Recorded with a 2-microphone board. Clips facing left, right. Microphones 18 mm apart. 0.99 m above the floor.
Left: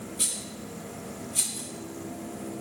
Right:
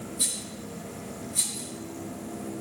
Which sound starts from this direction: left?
A rattle, at 0.2 s.